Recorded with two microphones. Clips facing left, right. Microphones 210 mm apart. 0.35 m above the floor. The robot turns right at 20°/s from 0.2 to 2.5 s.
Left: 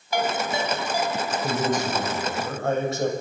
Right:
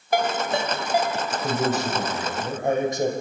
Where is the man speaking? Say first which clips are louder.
Right 1 dB; 5° right (ahead or behind), 1.9 m; by 3.1 s 15° right (ahead or behind), 1.9 m.